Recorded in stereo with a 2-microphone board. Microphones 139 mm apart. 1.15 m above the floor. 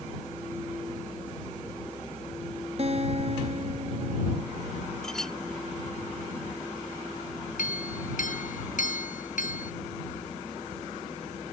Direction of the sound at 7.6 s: 70° left (ahead or behind).